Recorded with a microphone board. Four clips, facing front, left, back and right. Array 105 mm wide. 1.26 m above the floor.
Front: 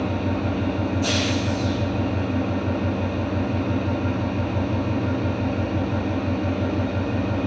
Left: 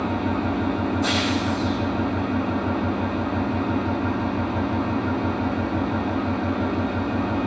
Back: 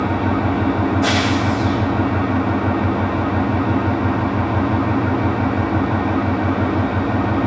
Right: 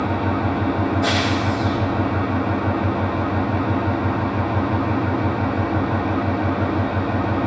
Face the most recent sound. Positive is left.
turn(degrees=-155)